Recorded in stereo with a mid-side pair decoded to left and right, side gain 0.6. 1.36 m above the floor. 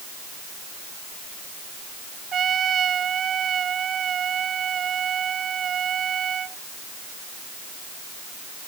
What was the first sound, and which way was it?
A trumpet, 40° right.